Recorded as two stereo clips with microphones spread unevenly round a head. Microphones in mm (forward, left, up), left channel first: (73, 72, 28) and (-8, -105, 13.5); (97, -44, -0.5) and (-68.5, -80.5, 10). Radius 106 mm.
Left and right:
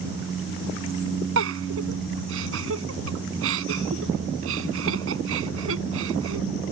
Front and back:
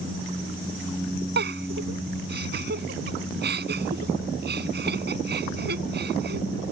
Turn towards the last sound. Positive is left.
turn(degrees=-145)